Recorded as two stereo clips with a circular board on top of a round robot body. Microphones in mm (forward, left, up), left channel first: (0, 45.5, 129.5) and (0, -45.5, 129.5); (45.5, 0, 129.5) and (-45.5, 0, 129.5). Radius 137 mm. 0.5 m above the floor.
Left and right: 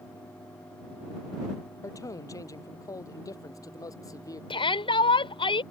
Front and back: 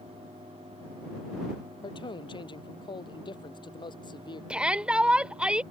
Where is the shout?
100° left.